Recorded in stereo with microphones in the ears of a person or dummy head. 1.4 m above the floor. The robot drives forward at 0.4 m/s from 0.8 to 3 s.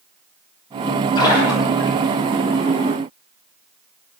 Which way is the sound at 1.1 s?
20° left (ahead or behind).